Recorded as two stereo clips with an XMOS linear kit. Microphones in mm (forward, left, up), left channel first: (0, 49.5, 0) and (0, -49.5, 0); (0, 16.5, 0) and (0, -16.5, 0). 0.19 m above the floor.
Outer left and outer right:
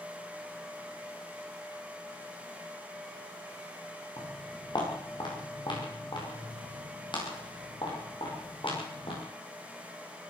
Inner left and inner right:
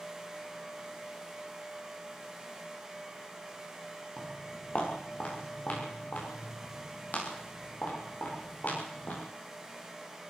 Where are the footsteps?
45° left (ahead or behind), 9 m; by 9.2 s 60° left (ahead or behind), 15.5 m.